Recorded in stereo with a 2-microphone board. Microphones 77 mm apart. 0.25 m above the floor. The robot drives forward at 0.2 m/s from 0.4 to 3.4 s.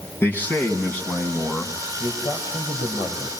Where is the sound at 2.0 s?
55° left (ahead or behind), 5 m; by 3.3 s 60° left (ahead or behind), 5 m.